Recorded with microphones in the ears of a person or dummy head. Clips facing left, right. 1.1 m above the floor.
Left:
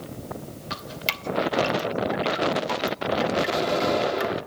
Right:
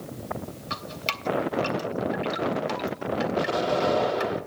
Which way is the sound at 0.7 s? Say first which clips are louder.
Left 2 dB; 5° left (ahead or behind).